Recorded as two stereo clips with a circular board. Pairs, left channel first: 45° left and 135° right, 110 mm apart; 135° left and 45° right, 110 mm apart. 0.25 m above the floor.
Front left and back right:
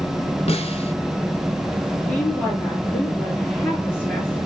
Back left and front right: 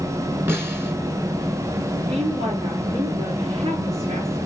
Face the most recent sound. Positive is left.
turn(degrees=-25)